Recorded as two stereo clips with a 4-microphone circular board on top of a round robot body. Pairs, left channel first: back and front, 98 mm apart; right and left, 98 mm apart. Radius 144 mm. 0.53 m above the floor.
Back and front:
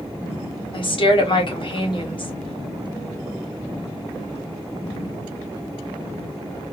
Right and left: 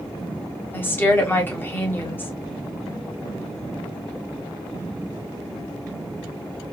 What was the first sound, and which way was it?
A woman speaking, 155° right.